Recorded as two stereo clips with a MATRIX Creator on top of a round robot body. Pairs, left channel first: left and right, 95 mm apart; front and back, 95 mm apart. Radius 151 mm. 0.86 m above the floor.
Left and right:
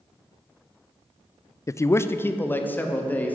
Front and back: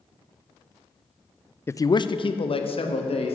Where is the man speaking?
50° left, 0.6 m; by 3.4 s 15° left, 2 m.